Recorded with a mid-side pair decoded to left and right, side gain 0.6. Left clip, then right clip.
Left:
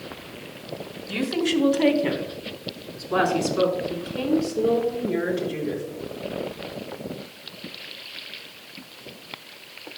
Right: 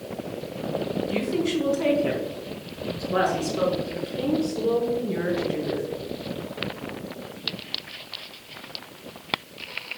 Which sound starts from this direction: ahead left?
A woman speaking, at 1.1 s.